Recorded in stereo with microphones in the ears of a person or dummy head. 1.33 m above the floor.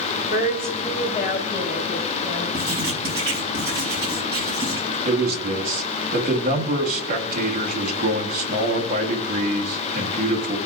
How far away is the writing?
About 2.5 m.